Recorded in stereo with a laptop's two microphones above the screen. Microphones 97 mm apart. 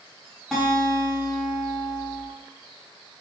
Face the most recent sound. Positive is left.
turn(degrees=-5)  # may be behind; listen again after turning